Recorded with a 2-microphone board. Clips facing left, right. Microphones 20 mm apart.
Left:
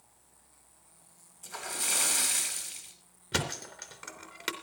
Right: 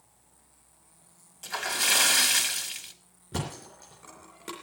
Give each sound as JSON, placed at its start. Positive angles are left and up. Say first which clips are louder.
{"t": 1.4, "sound": "a splash", "louder": "right 8 dB", "side_deg": -65, "distance_m": 3.0}
{"t": 3.3, "sound": "a thud", "louder": "left 3 dB", "side_deg": 55, "distance_m": 3.0}